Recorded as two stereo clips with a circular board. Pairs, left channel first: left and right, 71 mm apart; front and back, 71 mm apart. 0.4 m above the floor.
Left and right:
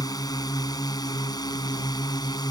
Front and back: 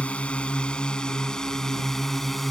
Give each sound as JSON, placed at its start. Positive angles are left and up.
{"t": 0.0, "sound": "a drone", "azimuth_deg": 70}